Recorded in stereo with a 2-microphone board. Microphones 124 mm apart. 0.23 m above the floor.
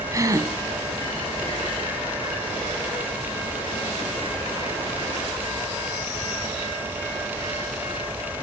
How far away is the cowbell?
I don't hear a cowbell.